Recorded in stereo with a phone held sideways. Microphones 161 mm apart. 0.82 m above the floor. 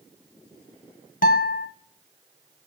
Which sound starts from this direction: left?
A guitar, at 1.2 s.